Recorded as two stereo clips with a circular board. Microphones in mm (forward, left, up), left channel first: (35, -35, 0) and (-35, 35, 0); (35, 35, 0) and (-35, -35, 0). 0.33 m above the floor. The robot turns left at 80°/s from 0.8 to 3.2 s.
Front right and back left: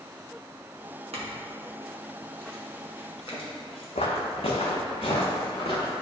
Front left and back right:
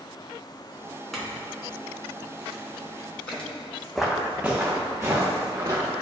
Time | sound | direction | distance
1.1 | a clink | 135° left | 1.8 m
4.0 | footsteps | 45° right | 1.0 m